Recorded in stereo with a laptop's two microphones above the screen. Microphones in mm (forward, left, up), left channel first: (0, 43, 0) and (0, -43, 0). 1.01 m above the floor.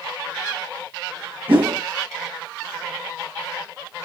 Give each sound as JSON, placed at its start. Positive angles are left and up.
{"t": 1.5, "sound": "a whoosh", "side_deg": -85, "distance_m": 2.5}